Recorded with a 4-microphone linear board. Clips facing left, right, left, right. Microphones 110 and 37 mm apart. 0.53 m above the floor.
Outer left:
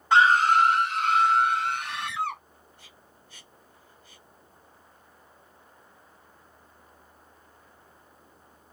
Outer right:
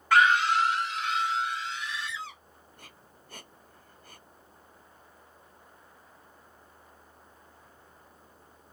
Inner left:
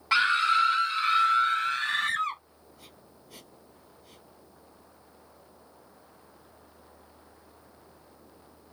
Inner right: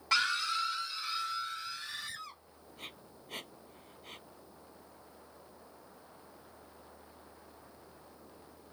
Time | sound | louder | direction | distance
0.1 | a scream | outer left 3 dB, inner left 9 dB | 20° left (ahead or behind) | ?
2.8 | breathing | outer right 1 dB, inner right 6 dB | 50° right (ahead or behind) | ?